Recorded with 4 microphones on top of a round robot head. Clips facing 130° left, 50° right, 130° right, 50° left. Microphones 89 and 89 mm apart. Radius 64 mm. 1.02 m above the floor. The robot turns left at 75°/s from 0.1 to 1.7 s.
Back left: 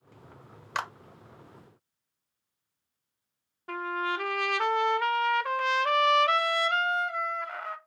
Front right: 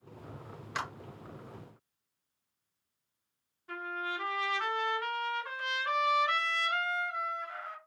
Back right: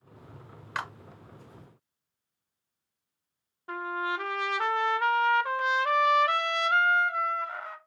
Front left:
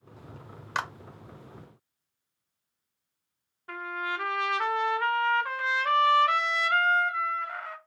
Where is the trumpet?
165° left, 0.6 m.